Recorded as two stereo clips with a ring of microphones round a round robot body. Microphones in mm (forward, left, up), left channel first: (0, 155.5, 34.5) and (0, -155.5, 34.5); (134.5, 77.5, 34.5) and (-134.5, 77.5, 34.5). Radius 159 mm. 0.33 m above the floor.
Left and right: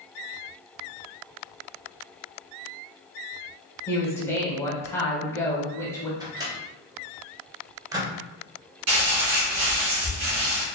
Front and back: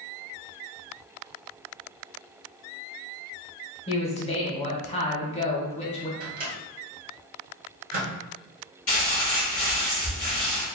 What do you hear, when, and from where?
3.9 s a man speaking: 20° left, 1.0 m
6.2 s a microwave: 160° right, 1.0 m
8.9 s crumpling: 70° right, 1.9 m